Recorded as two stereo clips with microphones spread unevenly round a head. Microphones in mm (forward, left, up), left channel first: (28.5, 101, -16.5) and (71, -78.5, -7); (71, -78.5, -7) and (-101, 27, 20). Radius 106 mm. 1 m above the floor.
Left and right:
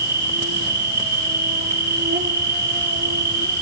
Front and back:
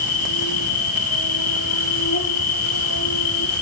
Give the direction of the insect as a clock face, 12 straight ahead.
1 o'clock.